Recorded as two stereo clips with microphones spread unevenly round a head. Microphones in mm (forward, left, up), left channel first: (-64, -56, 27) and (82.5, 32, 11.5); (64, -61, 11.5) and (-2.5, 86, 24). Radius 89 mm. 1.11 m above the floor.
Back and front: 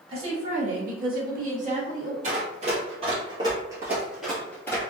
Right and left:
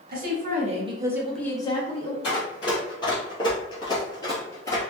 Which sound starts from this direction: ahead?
Running footsteps, at 2.2 s.